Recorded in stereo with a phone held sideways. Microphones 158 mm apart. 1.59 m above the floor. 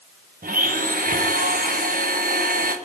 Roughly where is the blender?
Right.